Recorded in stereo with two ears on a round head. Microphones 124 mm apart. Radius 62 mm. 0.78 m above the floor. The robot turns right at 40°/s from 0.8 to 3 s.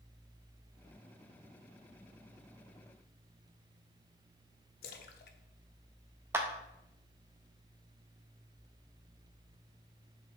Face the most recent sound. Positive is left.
turn(degrees=-15)  # may be behind; listen again after turning